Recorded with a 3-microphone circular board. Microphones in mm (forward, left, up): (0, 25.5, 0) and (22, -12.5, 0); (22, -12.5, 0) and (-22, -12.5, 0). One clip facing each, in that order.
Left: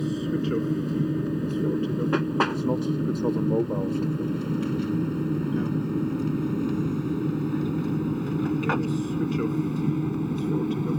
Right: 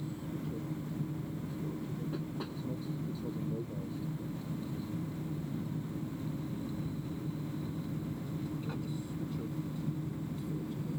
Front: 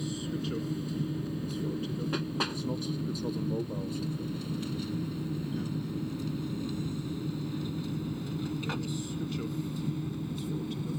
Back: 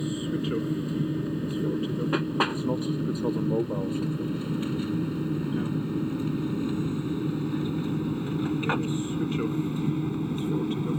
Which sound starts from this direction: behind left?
An aircraft, at 0.0 s.